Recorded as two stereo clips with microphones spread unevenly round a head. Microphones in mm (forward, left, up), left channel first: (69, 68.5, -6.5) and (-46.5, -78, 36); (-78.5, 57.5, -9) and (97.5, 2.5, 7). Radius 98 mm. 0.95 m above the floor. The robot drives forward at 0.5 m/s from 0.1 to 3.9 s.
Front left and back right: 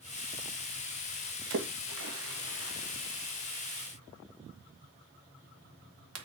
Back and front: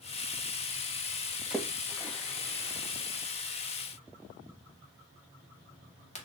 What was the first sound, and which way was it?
A splash, 105° right.